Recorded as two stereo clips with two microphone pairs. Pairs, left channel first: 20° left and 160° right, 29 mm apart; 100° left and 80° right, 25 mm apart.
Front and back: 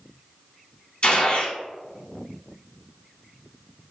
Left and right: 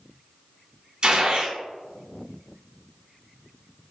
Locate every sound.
1.0 s a gunshot: 30° right, 0.6 m